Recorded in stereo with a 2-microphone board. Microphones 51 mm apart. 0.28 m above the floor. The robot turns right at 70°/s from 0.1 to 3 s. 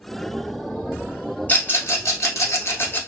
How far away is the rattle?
About 1.0 m.